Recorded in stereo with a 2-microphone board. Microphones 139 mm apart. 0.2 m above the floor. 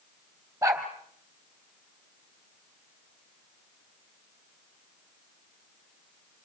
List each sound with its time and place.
0.6 s a dog barking: 20° right (ahead or behind), 3 m